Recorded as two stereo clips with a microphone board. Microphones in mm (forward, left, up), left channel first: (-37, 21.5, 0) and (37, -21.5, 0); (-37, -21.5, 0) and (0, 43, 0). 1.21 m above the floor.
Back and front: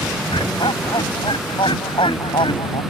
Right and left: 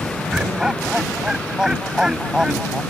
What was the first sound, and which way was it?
Laughter, 140° left.